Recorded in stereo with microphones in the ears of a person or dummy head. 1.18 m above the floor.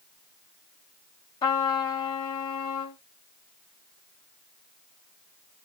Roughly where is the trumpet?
Left.